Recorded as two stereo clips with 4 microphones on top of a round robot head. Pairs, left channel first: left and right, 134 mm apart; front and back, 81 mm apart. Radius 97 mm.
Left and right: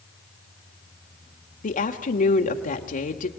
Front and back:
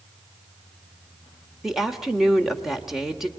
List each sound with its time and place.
1.6 s a woman speaking: 95° left, 1.7 m